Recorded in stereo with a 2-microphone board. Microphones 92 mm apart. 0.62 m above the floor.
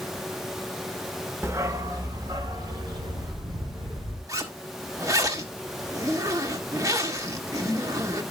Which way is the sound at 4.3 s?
35° right (ahead or behind).